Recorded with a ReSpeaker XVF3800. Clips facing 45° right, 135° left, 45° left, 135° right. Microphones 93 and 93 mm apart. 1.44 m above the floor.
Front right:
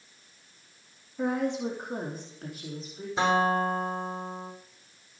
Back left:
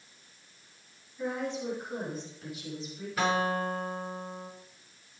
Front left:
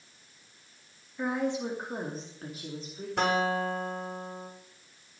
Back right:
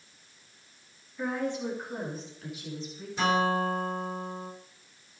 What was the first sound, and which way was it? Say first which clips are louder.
A woman speaking: front right 5 dB, front left 1 dB; 35° right.